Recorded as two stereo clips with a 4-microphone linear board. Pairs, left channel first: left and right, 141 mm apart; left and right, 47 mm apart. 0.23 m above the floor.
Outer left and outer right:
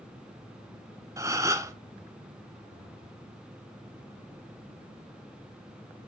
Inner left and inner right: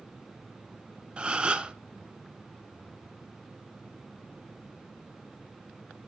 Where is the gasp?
20° right (ahead or behind), 0.6 m.